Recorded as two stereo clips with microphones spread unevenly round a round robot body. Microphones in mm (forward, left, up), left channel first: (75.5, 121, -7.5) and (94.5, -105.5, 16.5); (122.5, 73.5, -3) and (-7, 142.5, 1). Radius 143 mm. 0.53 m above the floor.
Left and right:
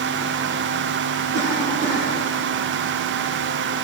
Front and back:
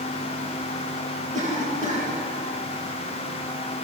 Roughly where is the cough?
Behind right.